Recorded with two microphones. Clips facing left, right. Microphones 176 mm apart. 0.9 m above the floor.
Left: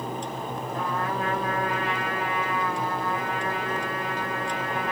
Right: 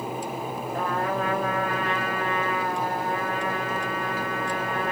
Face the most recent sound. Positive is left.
turn(degrees=-50)  # may be behind; listen again after turning